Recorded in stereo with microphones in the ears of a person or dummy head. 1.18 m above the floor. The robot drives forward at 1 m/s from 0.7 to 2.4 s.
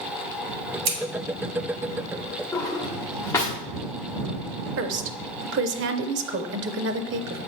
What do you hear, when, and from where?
0.8 s scissors: 55° right (ahead or behind), 3 m
2.5 s a drawer: 20° left (ahead or behind), 1.2 m
4.8 s a woman speaking: 55° right (ahead or behind), 0.5 m